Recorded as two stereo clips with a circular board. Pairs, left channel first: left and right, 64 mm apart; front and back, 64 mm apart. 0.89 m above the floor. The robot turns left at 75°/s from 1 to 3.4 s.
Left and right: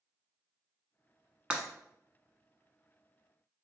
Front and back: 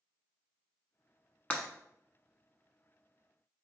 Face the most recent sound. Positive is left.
turn(degrees=180)